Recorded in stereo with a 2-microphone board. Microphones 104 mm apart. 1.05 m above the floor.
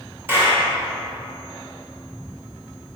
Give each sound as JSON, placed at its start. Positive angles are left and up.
{"t": 0.3, "sound": "a clap", "side_deg": -20, "distance_m": 2.0}